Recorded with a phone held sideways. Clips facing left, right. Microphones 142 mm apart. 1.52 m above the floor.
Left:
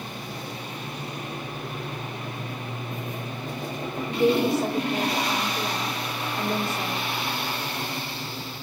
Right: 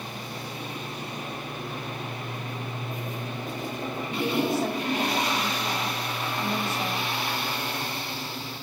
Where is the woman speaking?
80° left, 4.5 m.